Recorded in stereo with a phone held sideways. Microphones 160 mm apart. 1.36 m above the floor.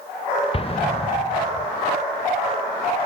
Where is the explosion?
35° left (ahead or behind), 0.6 m.